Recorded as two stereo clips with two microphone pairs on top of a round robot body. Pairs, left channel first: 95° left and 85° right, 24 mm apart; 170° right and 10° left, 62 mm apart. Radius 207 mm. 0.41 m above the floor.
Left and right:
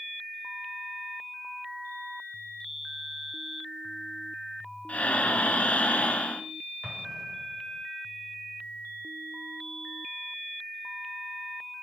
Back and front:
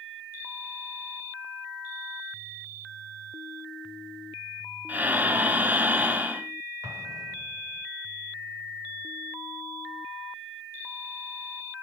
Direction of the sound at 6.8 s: 10° right.